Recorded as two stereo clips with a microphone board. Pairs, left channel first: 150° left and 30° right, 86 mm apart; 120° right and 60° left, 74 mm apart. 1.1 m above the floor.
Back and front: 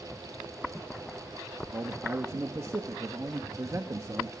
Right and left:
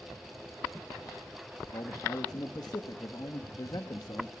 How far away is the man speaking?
About 1.4 m.